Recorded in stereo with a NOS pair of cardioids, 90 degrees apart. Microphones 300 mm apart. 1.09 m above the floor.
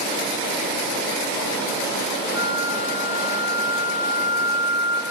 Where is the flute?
10° right, 7 m.